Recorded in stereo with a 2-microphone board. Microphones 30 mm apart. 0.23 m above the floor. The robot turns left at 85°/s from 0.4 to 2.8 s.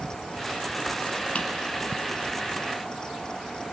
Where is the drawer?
50° left (ahead or behind), 1.6 m; by 1.5 s 45° left (ahead or behind), 1.6 m.